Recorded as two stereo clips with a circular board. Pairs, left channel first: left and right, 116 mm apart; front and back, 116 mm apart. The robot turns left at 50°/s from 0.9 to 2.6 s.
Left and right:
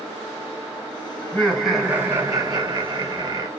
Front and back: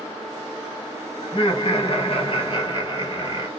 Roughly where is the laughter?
Ahead.